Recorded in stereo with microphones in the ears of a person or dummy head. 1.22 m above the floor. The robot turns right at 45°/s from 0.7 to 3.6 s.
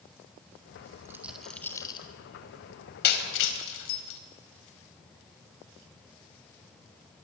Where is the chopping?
No chopping in this recording.